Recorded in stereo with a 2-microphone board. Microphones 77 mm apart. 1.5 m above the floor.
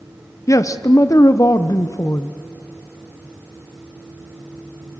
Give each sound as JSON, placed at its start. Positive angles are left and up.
{"t": 0.5, "sound": "a man speaking", "side_deg": 45, "distance_m": 0.8}